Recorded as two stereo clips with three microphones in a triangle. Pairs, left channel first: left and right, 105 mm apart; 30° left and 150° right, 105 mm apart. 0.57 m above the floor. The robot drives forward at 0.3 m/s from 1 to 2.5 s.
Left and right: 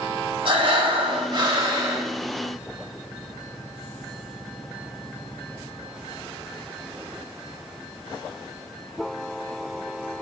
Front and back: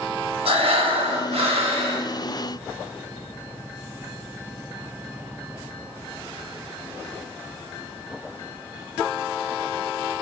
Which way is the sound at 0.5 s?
130° right.